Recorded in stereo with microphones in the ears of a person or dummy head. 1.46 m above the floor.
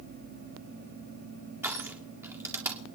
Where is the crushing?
15° right (ahead or behind), 1.9 m.